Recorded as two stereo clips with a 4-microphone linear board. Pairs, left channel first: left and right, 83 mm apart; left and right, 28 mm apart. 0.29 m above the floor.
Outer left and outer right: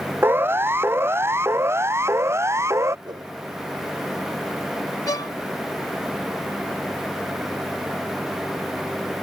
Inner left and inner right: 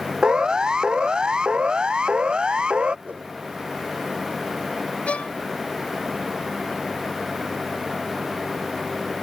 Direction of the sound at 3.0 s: 60° right (ahead or behind).